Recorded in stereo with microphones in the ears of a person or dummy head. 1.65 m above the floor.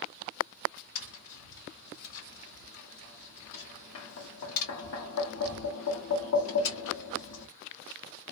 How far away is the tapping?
About 1.1 m.